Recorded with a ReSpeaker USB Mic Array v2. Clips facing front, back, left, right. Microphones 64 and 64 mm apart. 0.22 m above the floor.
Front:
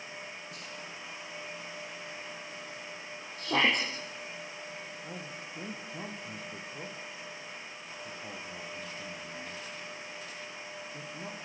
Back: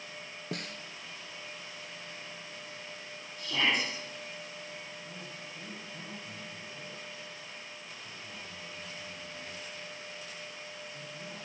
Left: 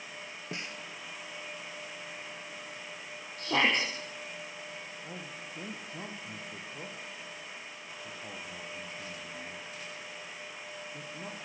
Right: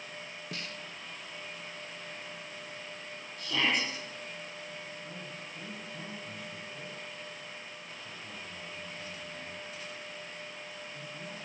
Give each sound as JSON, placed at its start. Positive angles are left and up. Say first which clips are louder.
{"t": 0.5, "sound": "a snare drum", "louder": "back 4 dB, left 2 dB", "azimuth_deg": 160, "distance_m": 1.4}
{"t": 3.4, "sound": "a shout", "louder": "front 3 dB, left 3 dB", "azimuth_deg": 45, "distance_m": 6.0}
{"t": 5.0, "sound": "a man speaking", "louder": "front 3 dB, even", "azimuth_deg": 40, "distance_m": 6.0}